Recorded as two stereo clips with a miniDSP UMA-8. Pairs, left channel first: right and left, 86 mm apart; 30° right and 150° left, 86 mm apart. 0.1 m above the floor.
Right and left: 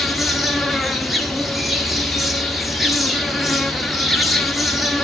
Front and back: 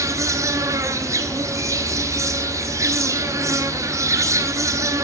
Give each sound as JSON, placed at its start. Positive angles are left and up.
{"t": 0.0, "sound": "an insect", "azimuth_deg": 175, "distance_m": 0.7}